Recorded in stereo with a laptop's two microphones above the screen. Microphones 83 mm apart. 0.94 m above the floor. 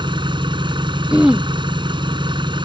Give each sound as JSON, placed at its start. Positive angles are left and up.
{"t": 0.0, "sound": "an engine running", "side_deg": -80}
{"t": 1.1, "sound": "throat clearing", "side_deg": -10}